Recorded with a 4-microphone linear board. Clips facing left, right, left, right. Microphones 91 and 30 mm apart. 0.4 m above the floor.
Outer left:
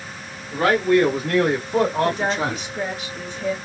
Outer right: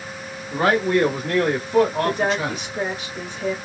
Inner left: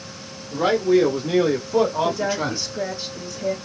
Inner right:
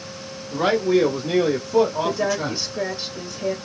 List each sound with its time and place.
0.5 s a man speaking: 20° right (ahead or behind), 1.4 m; by 2.6 s 40° left (ahead or behind), 1.7 m
2.0 s a woman speaking: 15° right (ahead or behind), 1.2 m